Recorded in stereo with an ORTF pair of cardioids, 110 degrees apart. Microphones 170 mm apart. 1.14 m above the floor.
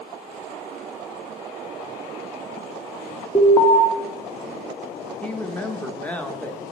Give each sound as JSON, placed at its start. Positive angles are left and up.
{"t": 3.4, "sound": "an alarm", "azimuth_deg": 20, "distance_m": 1.0}
{"t": 5.2, "sound": "a woman speaking", "azimuth_deg": 10, "distance_m": 0.9}